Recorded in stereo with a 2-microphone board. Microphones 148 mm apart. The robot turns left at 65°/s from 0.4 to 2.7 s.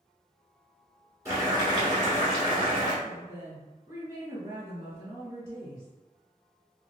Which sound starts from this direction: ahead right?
Boiling, at 1.2 s.